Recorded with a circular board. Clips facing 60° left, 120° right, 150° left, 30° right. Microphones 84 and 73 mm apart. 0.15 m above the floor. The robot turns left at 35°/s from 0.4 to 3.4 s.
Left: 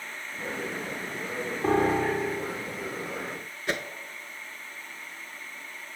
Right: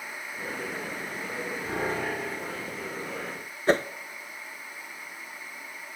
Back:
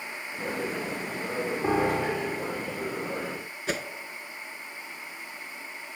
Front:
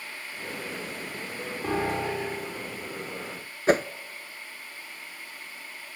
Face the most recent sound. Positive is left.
turn(degrees=-70)